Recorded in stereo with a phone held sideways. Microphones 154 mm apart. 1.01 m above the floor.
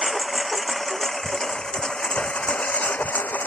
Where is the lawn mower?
Centre (ahead or behind); by 3.5 s 10° left (ahead or behind).